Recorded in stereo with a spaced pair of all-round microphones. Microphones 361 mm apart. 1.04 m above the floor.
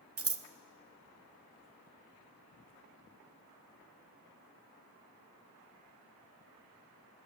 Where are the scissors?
40° right (ahead or behind), 0.5 m.